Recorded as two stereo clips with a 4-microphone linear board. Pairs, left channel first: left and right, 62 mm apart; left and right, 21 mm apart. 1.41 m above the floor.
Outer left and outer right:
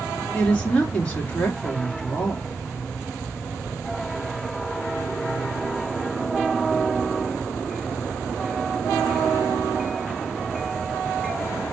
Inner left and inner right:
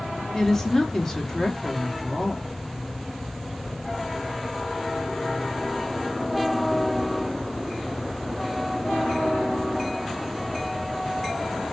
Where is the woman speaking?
20° left (ahead or behind), 3 m.